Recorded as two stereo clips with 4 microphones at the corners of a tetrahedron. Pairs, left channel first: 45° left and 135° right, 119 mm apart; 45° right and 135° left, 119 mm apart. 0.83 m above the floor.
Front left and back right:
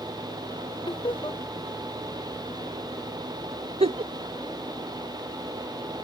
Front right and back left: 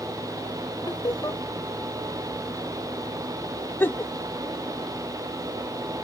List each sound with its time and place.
0.9 s laughter: 5° left
3.8 s a giggle: 115° right